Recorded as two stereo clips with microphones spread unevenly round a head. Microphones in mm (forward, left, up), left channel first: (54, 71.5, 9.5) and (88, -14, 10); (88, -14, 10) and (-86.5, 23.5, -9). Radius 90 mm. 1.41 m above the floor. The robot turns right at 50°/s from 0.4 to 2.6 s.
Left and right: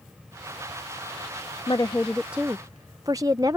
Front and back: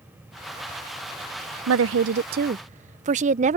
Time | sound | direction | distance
1.7 | a woman speaking | 175° left | ?